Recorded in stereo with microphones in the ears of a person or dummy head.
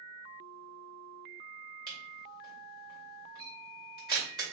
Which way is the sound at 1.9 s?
15° right (ahead or behind).